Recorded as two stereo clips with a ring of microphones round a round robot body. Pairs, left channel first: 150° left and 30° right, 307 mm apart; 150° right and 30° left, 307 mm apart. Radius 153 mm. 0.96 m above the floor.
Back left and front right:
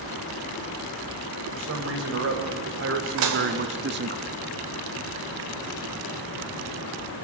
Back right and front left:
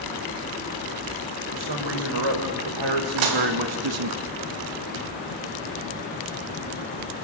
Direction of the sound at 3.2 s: 10° left.